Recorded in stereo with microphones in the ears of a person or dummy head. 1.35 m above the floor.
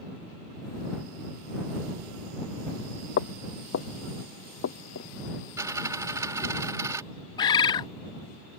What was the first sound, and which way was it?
Footsteps, 60° left (ahead or behind).